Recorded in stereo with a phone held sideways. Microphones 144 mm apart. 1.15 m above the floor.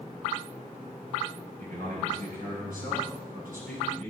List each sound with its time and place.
1.6 s a man speaking: 85° right, 6 m; by 4.1 s 75° right (ahead or behind), 4.5 m